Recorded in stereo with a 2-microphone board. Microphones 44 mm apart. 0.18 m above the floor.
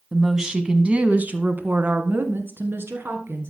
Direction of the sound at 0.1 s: 5° right (ahead or behind).